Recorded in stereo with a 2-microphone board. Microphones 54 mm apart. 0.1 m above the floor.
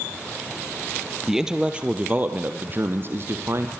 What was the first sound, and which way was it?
A man speaking, 5° right (ahead or behind).